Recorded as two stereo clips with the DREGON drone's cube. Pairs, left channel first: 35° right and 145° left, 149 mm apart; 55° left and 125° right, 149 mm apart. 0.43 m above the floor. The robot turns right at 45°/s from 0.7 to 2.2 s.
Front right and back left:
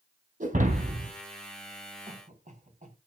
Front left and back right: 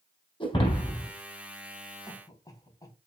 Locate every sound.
0.4 s breaking glass: 110° left, 3.5 m; by 1.1 s 130° left, 3.5 m
2.1 s a cough: 110° left, 3.5 m; by 3.0 s 120° left, 3.5 m